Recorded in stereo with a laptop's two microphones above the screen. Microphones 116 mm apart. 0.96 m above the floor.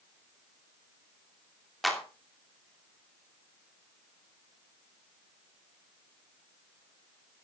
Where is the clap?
Centre (ahead or behind), 2.5 m.